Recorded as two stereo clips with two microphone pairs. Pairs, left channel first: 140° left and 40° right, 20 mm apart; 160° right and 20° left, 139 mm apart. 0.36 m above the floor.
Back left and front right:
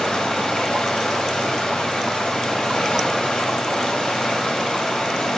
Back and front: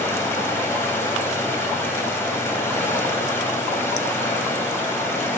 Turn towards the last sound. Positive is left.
turn(degrees=130)